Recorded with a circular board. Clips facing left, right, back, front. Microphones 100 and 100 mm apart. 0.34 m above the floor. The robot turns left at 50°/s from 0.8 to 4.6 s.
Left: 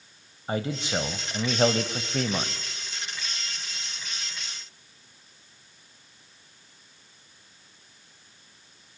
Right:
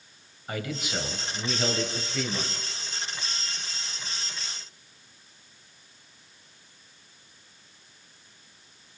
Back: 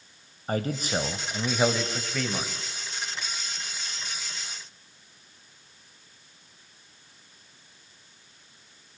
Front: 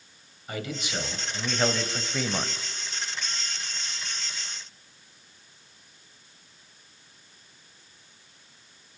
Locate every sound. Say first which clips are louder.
0.5 s a man speaking: left 4 dB, back 5 dB; 145° left, 2 m; by 2.6 s 55° left, 2 m